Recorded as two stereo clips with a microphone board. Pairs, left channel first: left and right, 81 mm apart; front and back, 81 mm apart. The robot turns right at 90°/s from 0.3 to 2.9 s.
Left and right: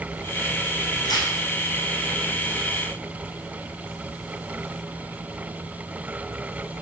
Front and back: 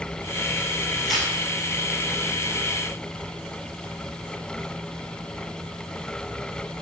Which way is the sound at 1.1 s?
80° left.